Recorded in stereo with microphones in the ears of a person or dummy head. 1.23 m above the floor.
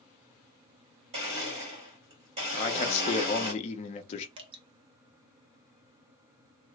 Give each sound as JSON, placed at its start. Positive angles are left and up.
{"t": 1.1, "sound": "a blender", "side_deg": -30, "distance_m": 1.4}
{"t": 2.5, "sound": "a man speaking", "side_deg": 35, "distance_m": 0.7}
{"t": 4.4, "sound": "dripping", "side_deg": -25, "distance_m": 0.7}